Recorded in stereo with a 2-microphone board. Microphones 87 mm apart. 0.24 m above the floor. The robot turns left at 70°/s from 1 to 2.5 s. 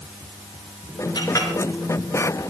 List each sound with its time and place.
1.1 s a clink: 50° left (ahead or behind), 3 m; by 1.5 s 30° left (ahead or behind), 3 m